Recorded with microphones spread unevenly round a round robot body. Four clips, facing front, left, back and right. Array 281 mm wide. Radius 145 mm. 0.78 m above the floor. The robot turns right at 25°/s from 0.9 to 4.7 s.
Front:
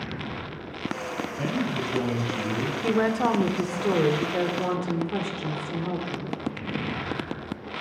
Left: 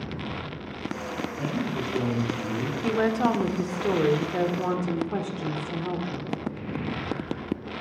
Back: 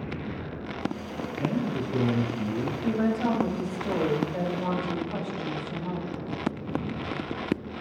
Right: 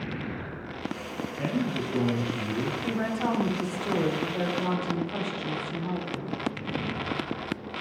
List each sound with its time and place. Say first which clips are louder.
1.4 s a man speaking: right 2 dB, back 1 dB; 15° right, 5 m; by 2.7 s 20° left, 5 m
2.8 s a woman speaking: left 8 dB, front 3 dB; 15° left, 1.8 m; by 6.4 s 60° left, 1.8 m